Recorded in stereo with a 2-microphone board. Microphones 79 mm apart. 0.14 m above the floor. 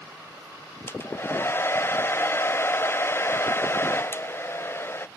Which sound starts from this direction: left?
A hair dryer, at 0.9 s.